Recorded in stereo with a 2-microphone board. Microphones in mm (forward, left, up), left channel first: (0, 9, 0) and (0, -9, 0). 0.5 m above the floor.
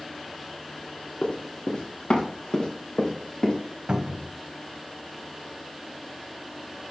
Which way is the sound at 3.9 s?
60° right (ahead or behind).